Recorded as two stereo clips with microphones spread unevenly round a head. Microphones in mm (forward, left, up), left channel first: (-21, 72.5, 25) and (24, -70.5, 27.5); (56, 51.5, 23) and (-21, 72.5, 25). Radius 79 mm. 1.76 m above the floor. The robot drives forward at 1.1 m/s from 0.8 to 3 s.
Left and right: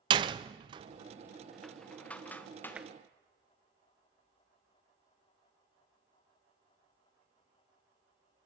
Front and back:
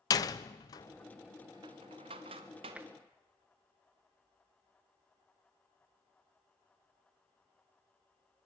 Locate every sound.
0.1 s a door slam: 30° right, 0.6 m; by 2.8 s 175° right, 1.9 m
2.8 s tapping: 140° right, 0.8 m; by 2.9 s 155° right, 0.9 m